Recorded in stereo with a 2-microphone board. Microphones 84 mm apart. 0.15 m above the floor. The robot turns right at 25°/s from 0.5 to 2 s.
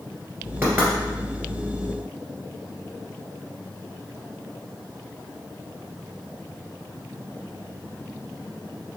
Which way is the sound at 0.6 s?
30° right (ahead or behind).